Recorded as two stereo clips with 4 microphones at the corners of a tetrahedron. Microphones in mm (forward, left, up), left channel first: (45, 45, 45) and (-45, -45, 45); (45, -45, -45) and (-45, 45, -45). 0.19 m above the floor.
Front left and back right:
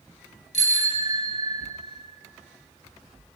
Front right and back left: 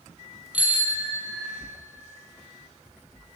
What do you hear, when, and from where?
0.5 s a bicycle bell: 60° left, 3 m; by 1.6 s 65° left, 2.5 m